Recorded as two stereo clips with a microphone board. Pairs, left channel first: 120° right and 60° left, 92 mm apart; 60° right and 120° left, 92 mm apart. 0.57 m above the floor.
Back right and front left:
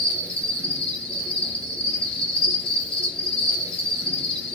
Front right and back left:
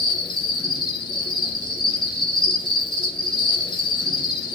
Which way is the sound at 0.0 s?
45° right.